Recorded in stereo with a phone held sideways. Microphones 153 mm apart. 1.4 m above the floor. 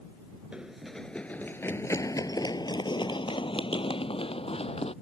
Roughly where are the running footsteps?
Centre.